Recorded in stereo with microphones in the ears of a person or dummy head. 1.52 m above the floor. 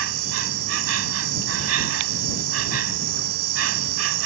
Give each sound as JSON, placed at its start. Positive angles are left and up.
{"t": 0.0, "sound": "an insect", "side_deg": -85}